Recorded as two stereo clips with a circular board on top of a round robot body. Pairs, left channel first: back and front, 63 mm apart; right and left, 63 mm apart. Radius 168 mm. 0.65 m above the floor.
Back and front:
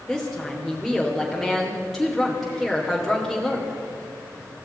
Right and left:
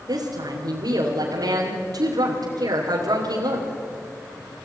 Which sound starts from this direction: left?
A woman speaking, at 0.1 s.